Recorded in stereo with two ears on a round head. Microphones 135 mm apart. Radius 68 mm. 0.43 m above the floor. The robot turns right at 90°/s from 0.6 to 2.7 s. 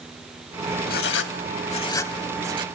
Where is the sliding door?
I don't hear a sliding door.